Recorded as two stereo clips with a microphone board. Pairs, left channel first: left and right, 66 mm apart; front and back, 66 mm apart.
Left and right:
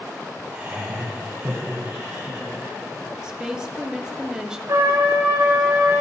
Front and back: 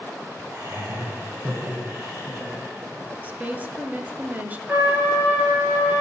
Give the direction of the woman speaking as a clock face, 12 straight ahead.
5 o'clock.